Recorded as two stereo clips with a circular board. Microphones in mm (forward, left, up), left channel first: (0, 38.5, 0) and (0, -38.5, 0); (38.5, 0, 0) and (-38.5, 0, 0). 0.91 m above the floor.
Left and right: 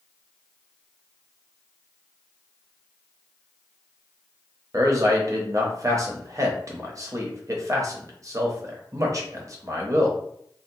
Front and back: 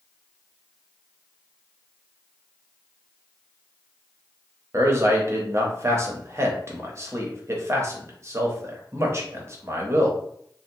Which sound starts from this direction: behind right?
A man speaking, at 4.7 s.